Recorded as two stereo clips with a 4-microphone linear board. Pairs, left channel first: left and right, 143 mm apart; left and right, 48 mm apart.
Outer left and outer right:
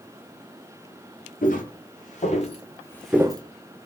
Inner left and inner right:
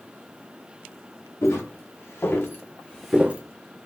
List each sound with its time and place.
1.4 s footsteps: 70° left (ahead or behind), 1.9 m; by 3.4 s 35° right (ahead or behind), 0.7 m